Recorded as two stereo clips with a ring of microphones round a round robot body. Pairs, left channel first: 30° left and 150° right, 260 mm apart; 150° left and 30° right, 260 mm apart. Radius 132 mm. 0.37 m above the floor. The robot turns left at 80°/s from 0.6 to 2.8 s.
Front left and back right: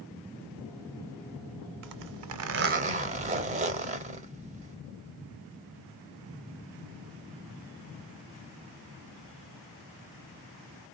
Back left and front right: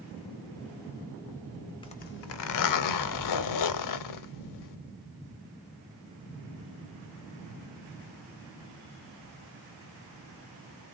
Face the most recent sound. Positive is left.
turn(degrees=145)